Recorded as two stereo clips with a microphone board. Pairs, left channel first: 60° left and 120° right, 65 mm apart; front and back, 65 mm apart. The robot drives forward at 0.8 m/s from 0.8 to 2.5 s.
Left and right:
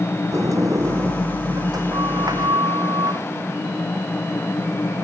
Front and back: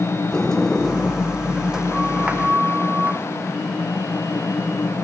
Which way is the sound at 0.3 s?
85° right.